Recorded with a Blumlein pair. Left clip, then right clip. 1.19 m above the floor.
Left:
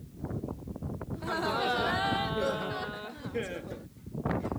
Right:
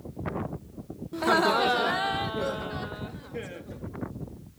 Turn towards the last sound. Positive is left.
turn(degrees=15)